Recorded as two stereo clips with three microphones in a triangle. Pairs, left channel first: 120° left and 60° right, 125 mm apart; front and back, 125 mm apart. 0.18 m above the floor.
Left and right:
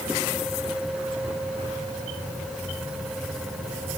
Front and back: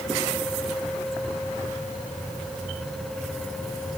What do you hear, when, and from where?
Only background noise.